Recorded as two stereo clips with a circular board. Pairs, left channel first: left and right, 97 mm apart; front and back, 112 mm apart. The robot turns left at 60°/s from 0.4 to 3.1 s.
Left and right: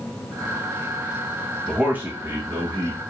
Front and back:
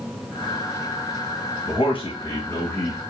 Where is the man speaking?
5° right, 1.0 m; by 3.0 s 85° right, 1.0 m.